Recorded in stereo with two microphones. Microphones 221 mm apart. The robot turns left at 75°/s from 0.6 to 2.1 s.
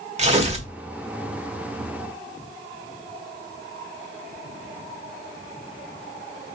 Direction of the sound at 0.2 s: 30° right (ahead or behind).